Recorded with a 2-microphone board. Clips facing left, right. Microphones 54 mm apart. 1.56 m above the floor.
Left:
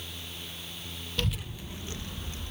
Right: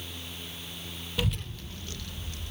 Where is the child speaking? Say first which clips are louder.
Right 1 dB; 10° right (ahead or behind), 0.5 m; by 2.5 s 25° left (ahead or behind), 2 m.